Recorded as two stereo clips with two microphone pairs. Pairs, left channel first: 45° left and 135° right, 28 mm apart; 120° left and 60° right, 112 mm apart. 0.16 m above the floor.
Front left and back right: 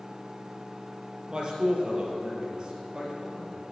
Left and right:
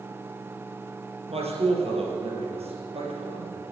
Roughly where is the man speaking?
Right.